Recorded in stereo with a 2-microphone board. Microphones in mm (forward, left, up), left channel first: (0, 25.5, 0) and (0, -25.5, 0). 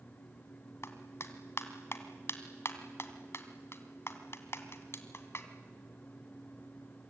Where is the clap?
60° left (ahead or behind), 2 m.